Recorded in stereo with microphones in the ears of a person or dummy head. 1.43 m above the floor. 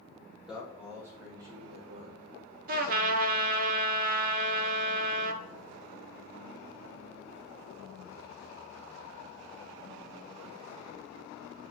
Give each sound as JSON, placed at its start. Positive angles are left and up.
{"t": 0.5, "sound": "a man speaking", "side_deg": -5, "distance_m": 3.0}
{"t": 2.7, "sound": "a trumpet", "side_deg": -45, "distance_m": 0.9}